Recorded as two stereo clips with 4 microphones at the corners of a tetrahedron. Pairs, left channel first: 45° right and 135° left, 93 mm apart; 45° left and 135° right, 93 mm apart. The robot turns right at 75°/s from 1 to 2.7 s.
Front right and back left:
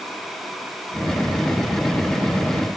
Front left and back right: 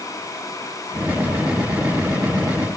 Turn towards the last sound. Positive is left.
No sound to turn to.